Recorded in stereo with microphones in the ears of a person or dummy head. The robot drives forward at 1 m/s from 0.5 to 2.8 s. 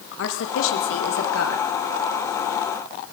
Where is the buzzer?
No buzzer in this recording.